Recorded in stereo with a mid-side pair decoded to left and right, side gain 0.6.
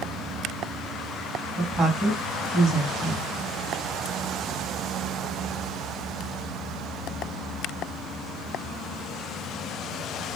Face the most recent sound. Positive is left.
turn(degrees=-25)